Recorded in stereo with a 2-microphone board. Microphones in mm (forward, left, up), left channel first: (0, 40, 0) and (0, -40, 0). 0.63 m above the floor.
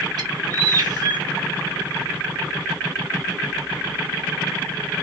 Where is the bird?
55° right (ahead or behind), 0.9 m.